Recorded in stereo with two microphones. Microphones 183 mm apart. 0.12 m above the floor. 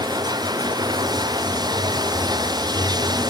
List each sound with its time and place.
0.0 s running water: 20° right (ahead or behind)